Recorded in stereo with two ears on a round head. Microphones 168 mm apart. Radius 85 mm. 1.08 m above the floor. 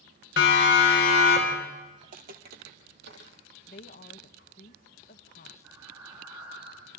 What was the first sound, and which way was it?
A siren, 55° left (ahead or behind).